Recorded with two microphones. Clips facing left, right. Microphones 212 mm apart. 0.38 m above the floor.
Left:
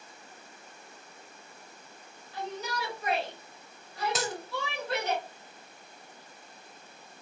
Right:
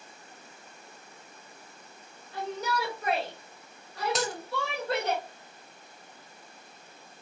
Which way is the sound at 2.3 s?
45° right (ahead or behind).